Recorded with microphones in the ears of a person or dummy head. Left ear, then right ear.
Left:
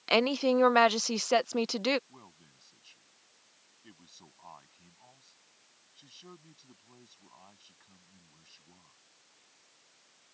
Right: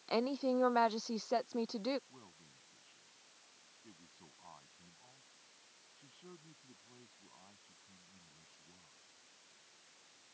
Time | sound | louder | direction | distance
0.1 | a woman speaking | left 9 dB | 80° left | ?
2.1 | a man speaking | left 3 dB | 85° left | ?